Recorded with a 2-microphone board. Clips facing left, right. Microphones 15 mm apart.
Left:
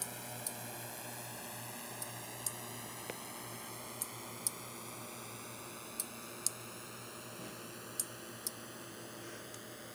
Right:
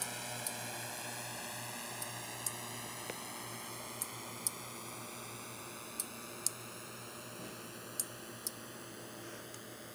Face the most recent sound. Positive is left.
turn(degrees=5)  # may be behind; listen again after turning